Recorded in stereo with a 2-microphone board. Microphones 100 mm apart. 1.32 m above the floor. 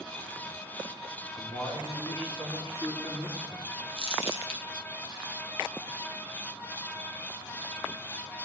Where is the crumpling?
70° left (ahead or behind), 1.7 m.